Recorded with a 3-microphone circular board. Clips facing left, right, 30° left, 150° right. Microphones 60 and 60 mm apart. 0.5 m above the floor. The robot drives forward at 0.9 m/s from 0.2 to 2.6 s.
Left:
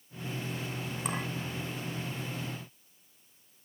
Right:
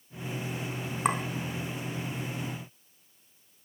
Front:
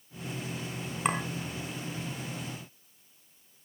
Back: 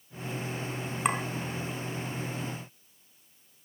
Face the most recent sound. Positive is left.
turn(degrees=-95)